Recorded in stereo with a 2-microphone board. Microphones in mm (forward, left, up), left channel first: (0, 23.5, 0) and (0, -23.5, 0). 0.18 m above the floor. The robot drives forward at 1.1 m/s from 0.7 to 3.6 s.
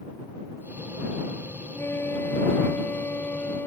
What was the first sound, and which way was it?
A flute, 55° left (ahead or behind).